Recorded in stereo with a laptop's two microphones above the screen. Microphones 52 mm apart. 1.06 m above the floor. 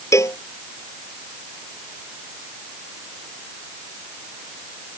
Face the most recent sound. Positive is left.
turn(degrees=65)  # may be behind; listen again after turning